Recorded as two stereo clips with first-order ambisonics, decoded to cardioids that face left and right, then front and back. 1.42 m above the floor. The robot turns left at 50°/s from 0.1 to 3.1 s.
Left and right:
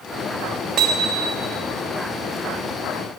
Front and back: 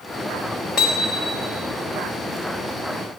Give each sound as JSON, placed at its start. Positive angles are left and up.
{"t": 0.8, "sound": "hammering", "azimuth_deg": -60, "distance_m": 1.2}